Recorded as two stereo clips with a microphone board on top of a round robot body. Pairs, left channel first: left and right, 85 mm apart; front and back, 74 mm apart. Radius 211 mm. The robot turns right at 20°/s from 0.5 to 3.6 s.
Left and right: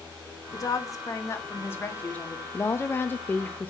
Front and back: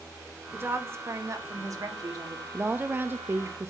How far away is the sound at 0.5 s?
About 2.0 m.